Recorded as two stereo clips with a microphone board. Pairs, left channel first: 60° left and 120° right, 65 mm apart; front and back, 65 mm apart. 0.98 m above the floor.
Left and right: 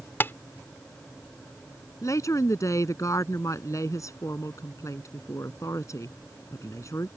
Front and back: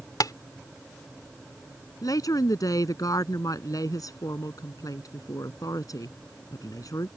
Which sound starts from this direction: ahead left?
A woman speaking, at 2.0 s.